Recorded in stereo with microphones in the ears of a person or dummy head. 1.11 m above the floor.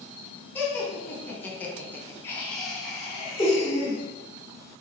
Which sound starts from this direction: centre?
Laughter, at 0.6 s.